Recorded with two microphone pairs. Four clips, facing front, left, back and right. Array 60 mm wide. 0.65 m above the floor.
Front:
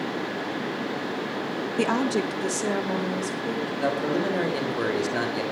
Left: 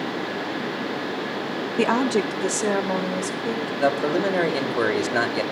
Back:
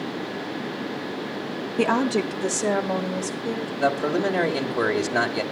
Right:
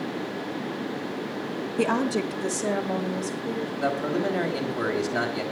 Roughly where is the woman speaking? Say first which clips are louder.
Left 4 dB, back 3 dB; left.